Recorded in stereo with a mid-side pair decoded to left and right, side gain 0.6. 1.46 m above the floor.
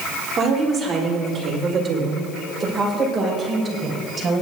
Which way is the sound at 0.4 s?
35° right.